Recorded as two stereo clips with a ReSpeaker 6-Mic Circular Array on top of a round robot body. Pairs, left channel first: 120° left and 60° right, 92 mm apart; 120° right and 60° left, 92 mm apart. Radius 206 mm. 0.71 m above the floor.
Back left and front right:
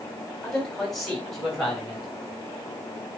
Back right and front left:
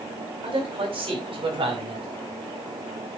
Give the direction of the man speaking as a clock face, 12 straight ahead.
11 o'clock.